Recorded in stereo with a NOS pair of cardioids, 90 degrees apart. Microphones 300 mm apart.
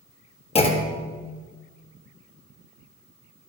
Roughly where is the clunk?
Ahead.